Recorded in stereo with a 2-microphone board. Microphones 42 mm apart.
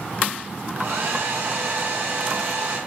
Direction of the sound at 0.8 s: 75° right (ahead or behind).